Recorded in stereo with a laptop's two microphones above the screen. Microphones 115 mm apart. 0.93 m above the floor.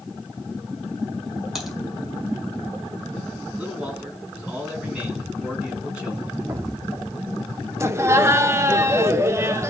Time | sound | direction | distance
1.6 | typing on a keyboard | centre (ahead or behind) | 4.5 m
3.6 | a man speaking | 10° right (ahead or behind) | 9.5 m
6.5 | an explosion | 25° right (ahead or behind) | 0.7 m
7.8 | laughter | 25° right (ahead or behind) | 1.2 m